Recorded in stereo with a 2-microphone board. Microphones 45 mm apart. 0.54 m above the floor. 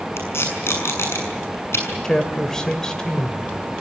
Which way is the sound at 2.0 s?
15° left (ahead or behind).